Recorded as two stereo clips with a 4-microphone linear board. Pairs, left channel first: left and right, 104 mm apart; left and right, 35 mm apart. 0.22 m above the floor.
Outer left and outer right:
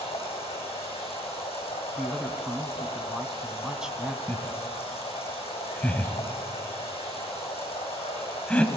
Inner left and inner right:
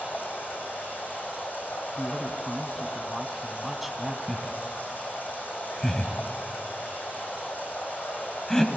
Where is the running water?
80° left, 8 m.